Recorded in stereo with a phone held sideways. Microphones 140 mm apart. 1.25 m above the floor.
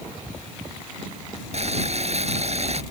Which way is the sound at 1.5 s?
50° right (ahead or behind).